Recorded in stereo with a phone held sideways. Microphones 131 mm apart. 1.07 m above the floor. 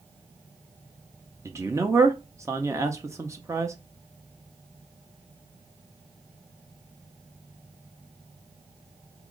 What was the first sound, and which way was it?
A man speaking, 25° right (ahead or behind).